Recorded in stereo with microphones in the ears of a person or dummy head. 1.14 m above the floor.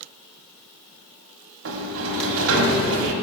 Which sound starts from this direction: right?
A sliding door, at 1.6 s.